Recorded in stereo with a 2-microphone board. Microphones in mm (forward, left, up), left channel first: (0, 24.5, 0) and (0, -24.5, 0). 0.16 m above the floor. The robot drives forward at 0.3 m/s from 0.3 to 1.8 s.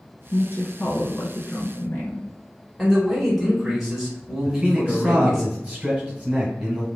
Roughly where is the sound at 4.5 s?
Right.